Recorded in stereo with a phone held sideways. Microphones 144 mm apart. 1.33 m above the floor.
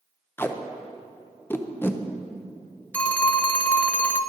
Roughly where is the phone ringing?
Centre.